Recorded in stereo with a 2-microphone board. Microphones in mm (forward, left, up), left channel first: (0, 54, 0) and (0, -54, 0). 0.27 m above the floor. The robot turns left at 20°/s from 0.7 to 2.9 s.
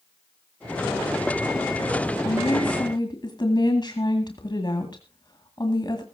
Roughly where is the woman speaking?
Left.